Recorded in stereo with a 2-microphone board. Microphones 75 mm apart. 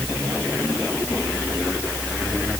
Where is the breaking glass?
No breaking glass in this recording.